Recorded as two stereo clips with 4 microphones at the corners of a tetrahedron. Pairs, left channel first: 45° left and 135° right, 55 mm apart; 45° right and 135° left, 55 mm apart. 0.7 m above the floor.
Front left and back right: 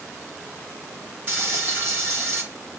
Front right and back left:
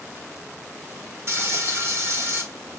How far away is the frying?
About 6 m.